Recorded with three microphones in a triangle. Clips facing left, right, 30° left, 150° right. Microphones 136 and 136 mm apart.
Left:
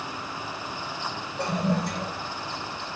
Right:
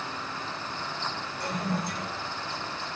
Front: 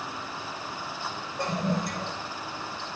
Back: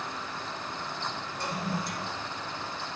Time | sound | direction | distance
1.4 | a toilet flushing | 75° left | 8 m